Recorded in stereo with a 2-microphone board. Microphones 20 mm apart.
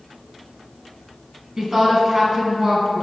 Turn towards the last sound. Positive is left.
turn(degrees=-35)  # may be behind; listen again after turning